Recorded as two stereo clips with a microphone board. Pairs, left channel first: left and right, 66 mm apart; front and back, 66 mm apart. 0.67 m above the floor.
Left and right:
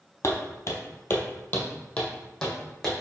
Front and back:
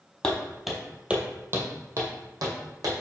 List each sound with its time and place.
0.2 s footsteps: 70° left, 1.0 m; by 2.9 s 170° left, 1.7 m